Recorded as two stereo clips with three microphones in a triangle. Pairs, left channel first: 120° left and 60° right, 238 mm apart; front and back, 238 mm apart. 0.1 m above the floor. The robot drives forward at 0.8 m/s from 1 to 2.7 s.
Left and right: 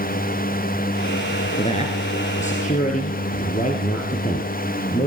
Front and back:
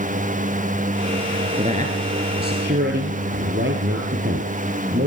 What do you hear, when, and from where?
1.6 s a man speaking: 150° left, 1.6 m; by 5.1 s 165° left, 2 m